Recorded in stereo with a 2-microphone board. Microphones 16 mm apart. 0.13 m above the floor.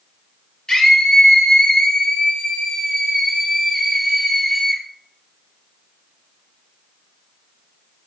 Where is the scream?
60° left (ahead or behind), 2.5 m; by 4.8 s 25° left (ahead or behind), 2.0 m.